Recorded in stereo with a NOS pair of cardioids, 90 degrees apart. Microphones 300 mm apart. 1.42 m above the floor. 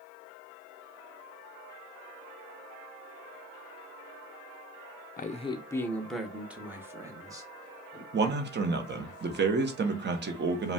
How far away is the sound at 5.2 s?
About 0.6 m.